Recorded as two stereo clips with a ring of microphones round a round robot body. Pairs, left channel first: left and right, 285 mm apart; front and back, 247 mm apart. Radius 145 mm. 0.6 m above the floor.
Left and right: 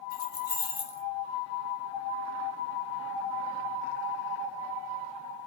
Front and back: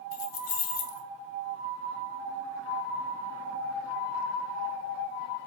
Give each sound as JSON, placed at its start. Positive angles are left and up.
{"t": 0.1, "sound": "keys jangling", "azimuth_deg": 35, "distance_m": 1.3}